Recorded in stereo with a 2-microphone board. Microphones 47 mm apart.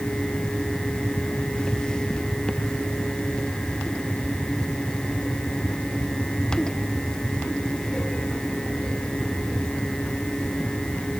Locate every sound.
Only background noise.